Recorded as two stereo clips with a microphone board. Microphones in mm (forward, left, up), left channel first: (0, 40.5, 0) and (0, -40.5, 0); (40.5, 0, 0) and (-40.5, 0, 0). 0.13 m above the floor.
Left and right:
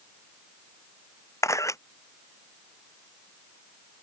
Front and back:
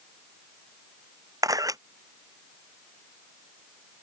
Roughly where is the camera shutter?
Behind left.